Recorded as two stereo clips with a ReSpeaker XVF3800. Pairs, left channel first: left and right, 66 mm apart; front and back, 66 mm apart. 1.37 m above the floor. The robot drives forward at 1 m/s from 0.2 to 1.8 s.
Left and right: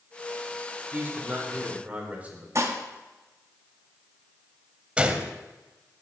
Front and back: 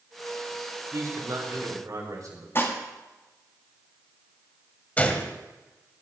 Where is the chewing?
I don't hear chewing.